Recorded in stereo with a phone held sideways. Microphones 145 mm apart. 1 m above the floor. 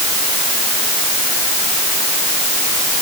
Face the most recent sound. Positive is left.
No sound to turn to.